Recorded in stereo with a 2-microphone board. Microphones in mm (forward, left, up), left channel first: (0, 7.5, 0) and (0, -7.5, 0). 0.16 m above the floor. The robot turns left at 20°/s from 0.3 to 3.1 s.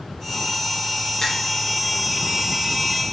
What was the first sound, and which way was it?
A finger snap, 30° left (ahead or behind).